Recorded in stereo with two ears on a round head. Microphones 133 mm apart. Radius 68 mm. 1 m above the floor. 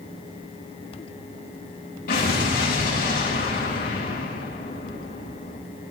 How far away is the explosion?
About 6.5 m.